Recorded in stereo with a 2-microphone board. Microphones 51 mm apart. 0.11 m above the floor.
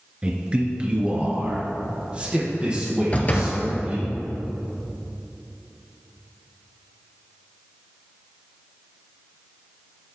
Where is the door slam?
30° left (ahead or behind), 1.2 m.